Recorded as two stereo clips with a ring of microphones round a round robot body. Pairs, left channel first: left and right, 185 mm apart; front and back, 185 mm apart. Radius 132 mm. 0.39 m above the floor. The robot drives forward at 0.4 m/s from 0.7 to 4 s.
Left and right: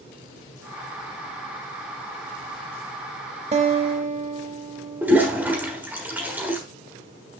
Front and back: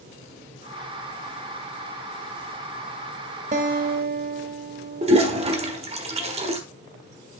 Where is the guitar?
140° right, 0.8 m; by 5.8 s 150° right, 0.9 m.